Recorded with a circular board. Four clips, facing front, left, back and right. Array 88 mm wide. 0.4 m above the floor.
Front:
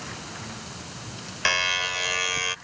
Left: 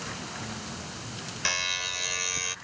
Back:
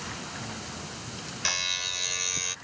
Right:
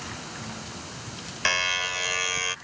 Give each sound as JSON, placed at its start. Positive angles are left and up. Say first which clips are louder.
{"t": 1.4, "sound": "a buzzer", "louder": "right 7 dB, front 11 dB", "azimuth_deg": -35}